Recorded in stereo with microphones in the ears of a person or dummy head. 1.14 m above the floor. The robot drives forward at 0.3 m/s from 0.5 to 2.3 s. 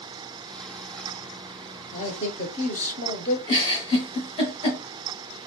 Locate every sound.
1.9 s a man speaking: 40° left (ahead or behind), 0.7 m
3.5 s a giggle: 30° left (ahead or behind), 1.7 m